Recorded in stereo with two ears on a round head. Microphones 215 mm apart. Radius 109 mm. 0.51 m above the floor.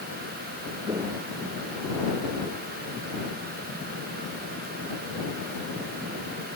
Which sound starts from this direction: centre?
Footsteps, at 0.8 s.